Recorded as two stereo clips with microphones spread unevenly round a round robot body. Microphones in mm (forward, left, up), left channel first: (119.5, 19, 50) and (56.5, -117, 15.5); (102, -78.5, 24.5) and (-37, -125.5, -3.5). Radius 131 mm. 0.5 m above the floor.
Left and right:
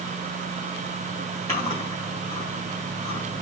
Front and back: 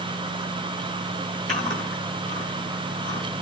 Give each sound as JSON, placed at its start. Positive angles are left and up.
{"t": 1.5, "sound": "chewing", "azimuth_deg": 145, "distance_m": 5.0}